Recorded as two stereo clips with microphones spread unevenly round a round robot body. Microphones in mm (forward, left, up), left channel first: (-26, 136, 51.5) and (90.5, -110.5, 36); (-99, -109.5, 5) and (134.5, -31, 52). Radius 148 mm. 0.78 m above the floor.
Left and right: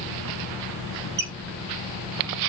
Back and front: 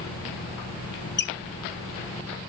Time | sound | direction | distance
1.2 | a squeak | 120° right | 1.0 m